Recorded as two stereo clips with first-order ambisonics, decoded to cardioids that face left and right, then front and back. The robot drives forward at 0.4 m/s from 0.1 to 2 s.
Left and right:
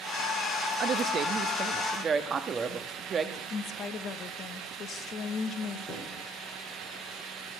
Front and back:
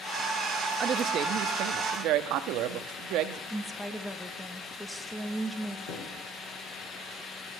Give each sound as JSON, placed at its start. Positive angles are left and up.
{"t": 0.8, "sound": "a woman speaking", "azimuth_deg": -130, "distance_m": 0.7}
{"t": 3.5, "sound": "a woman speaking", "azimuth_deg": 80, "distance_m": 1.1}
{"t": 5.9, "sound": "a thud", "azimuth_deg": 15, "distance_m": 4.5}